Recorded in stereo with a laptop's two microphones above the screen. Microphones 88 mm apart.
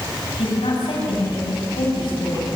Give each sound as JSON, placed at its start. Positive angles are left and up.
{"t": 0.4, "sound": "a woman speaking", "side_deg": 75, "distance_m": 7.5}